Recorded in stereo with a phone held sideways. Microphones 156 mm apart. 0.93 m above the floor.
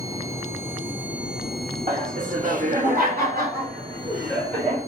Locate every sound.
1.9 s laughter: 50° right (ahead or behind), 1.4 m; by 4.8 s 70° right (ahead or behind), 2.5 m